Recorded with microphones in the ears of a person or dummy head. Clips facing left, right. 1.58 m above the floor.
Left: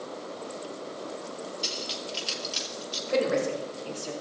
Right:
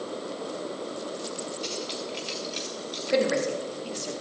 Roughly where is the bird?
I don't hear a bird.